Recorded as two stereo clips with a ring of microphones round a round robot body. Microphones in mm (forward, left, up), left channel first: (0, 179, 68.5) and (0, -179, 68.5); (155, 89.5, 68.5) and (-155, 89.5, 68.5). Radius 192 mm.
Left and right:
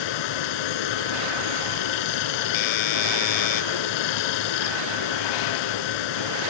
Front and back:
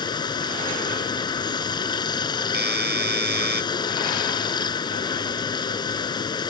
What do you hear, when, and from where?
0.0 s running water: 75° left
2.5 s a doorbell: 120° left